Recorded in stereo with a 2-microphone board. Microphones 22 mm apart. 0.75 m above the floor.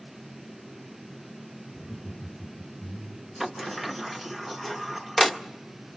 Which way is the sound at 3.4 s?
5° right (ahead or behind).